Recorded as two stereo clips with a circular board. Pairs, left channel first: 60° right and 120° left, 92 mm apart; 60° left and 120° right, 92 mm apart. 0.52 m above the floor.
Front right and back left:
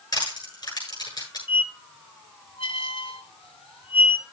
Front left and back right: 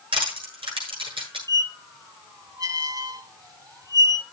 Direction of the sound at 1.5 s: 70° right.